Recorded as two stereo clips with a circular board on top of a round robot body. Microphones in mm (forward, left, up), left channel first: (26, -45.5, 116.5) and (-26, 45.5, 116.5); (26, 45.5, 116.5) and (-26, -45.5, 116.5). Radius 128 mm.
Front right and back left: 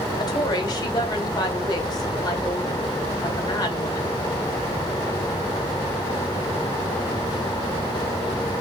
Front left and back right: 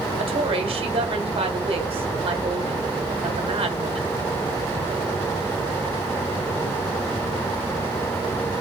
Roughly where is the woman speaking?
Right.